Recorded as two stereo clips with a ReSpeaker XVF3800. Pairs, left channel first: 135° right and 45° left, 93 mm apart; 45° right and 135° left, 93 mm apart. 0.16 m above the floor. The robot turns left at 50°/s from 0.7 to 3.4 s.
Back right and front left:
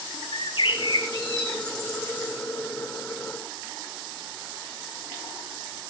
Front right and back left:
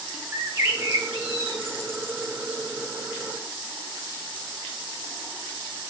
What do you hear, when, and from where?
0.3 s a bird: 165° right, 2.5 m; by 2.3 s 110° left, 2.5 m